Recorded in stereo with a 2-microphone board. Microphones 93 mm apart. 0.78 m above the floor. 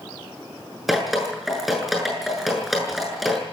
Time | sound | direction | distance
0.9 | dripping | centre (ahead or behind) | 7 m